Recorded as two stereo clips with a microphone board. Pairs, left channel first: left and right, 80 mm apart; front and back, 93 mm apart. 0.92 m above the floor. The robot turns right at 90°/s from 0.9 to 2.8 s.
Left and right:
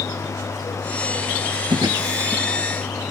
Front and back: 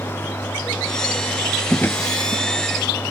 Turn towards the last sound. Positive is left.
turn(degrees=20)